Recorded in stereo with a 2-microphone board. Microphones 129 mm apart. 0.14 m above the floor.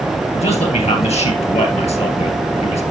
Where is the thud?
I don't hear a thud.